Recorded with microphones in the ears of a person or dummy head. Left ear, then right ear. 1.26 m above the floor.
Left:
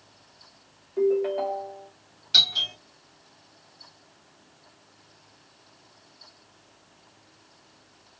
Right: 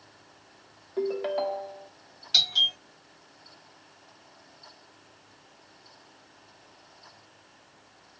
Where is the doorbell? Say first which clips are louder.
Left 2 dB; 10° right (ahead or behind), 1.3 m.